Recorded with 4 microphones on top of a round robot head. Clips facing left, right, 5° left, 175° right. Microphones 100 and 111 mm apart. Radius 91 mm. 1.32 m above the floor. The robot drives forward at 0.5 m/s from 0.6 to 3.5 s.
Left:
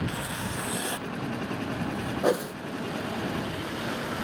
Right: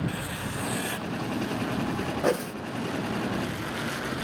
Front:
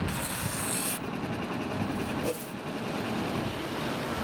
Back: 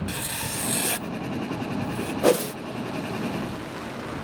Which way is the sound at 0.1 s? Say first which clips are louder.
Even, back 1 dB; 160° left.